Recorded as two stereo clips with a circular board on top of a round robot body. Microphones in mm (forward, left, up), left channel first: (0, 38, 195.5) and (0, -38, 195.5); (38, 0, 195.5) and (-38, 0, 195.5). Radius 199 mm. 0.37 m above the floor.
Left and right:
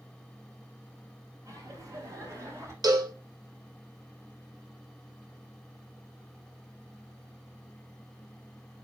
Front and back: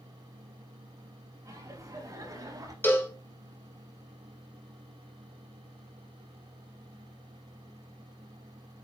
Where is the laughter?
135° right, 5 m; by 2.7 s 140° right, 4.5 m.